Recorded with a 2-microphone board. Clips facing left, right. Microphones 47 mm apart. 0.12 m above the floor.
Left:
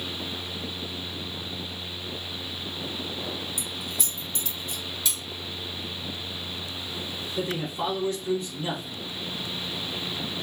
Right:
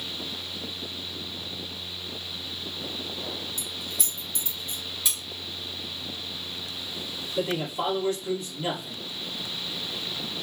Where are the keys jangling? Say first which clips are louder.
Left 2 dB; 15° left (ahead or behind), 1.8 m; by 4.8 s 35° right (ahead or behind), 1.3 m.